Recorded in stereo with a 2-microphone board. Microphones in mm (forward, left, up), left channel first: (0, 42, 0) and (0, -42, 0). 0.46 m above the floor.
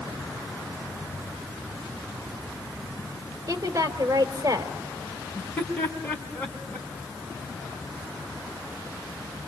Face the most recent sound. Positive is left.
turn(degrees=20)  # may be behind; listen again after turning